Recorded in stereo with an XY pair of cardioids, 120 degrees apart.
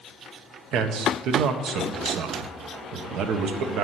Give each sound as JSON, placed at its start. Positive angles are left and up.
{"t": 0.7, "sound": "a man speaking", "azimuth_deg": -70, "distance_m": 0.9}